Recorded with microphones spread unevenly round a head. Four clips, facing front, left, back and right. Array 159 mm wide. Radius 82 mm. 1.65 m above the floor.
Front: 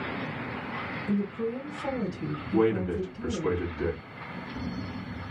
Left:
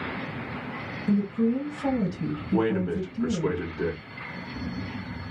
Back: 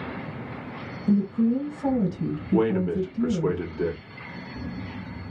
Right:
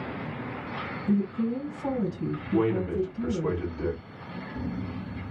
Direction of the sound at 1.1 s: 165° left.